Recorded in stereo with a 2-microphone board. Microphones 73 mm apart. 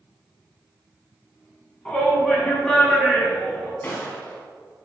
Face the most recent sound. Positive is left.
turn(degrees=30)  # may be behind; listen again after turning